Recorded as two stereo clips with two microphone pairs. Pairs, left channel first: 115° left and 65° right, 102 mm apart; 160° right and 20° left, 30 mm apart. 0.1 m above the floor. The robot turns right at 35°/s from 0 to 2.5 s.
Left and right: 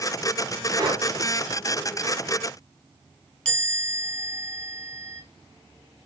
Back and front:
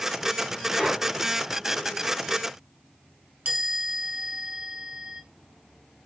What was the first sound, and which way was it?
Breathing, 60° right.